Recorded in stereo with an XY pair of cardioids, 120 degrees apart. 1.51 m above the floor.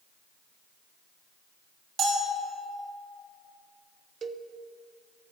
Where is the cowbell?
40° right, 0.6 m.